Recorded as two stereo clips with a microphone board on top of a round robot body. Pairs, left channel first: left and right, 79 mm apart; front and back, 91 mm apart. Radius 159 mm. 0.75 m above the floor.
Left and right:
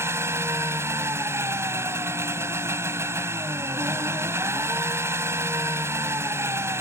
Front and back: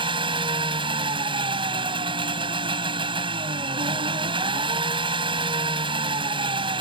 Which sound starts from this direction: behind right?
An engine running, at 0.0 s.